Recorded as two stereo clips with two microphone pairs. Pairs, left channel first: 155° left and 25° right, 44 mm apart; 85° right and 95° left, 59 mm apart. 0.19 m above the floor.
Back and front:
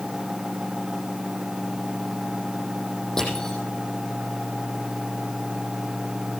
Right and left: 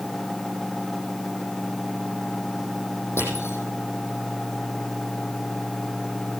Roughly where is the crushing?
Behind right.